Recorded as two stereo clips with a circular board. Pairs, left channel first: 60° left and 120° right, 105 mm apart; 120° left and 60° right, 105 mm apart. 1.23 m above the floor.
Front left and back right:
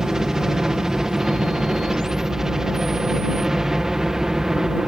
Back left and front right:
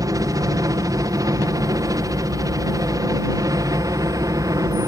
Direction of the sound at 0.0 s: 40° right.